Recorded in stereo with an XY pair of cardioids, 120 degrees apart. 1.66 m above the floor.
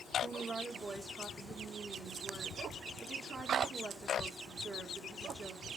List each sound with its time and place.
0.2 s a woman speaking: 40° right, 1.8 m